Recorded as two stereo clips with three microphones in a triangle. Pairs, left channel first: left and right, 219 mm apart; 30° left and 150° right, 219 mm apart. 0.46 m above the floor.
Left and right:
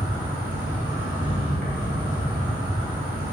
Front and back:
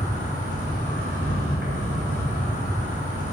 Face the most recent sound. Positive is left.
turn(degrees=-130)